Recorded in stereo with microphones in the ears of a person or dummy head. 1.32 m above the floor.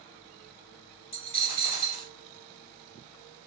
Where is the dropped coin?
35° left (ahead or behind), 2 m.